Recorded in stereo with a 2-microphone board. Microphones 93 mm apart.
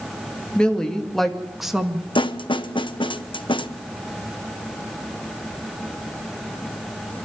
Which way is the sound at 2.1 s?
55° left (ahead or behind).